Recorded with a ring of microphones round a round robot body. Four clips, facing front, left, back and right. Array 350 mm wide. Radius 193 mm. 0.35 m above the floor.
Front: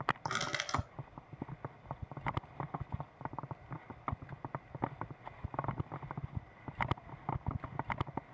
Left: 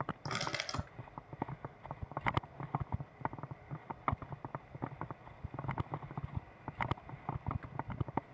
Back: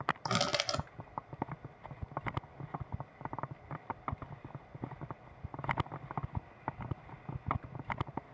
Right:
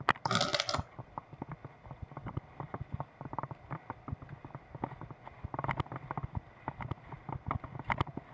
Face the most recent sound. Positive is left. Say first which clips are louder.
# right 7 dB, back 4 dB
turn(degrees=-140)